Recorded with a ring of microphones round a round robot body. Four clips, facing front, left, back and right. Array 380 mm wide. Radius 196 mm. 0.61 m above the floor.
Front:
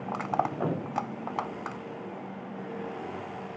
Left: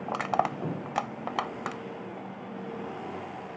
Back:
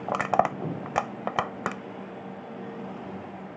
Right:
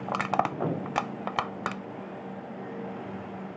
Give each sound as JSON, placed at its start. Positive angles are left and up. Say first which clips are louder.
{"t": 0.1, "sound": "crushing", "louder": "even, back 5 dB", "azimuth_deg": -170}